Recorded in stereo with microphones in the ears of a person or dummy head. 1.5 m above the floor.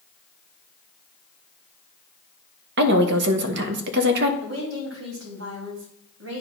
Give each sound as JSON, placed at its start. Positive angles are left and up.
{"t": 2.8, "sound": "a woman speaking", "side_deg": -65, "distance_m": 1.2}
{"t": 4.4, "sound": "a woman speaking", "side_deg": -85, "distance_m": 3.0}